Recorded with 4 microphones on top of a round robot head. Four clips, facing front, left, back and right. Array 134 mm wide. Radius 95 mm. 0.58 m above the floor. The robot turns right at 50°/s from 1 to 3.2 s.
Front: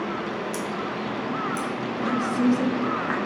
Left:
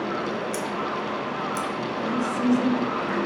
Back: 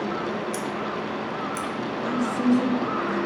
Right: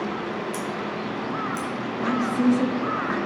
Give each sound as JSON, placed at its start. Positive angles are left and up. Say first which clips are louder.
{"t": 0.5, "sound": "scissors", "louder": "left 1 dB, even", "azimuth_deg": 125, "distance_m": 1.4}
{"t": 2.0, "sound": "a woman speaking", "louder": "right 4 dB, front 2 dB", "azimuth_deg": -85, "distance_m": 1.1}